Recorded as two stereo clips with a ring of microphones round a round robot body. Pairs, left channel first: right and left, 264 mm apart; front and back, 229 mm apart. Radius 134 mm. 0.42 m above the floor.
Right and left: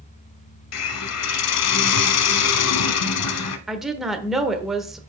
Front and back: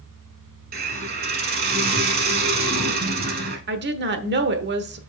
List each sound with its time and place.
0.7 s a hiss: 120° right, 0.8 m
3.7 s a woman speaking: straight behind, 1.0 m